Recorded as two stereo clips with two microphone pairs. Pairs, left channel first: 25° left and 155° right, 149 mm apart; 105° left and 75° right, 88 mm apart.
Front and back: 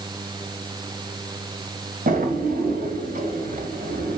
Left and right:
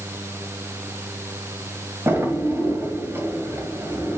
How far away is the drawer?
About 2 m.